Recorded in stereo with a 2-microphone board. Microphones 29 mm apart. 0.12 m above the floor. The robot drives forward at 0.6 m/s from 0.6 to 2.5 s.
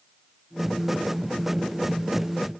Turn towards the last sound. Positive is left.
No sound to turn to.